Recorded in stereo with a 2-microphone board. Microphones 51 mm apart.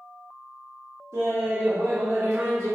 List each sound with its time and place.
1.1 s laughter: 75° right (ahead or behind), 0.6 m